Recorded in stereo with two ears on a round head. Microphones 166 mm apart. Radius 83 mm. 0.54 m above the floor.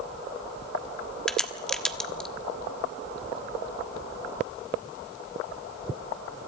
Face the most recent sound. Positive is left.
turn(degrees=5)  # may be behind; listen again after turning